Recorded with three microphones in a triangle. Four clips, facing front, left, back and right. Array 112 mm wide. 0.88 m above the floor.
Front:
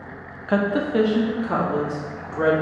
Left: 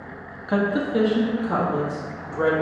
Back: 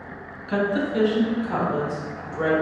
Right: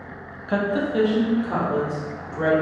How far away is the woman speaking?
About 0.6 m.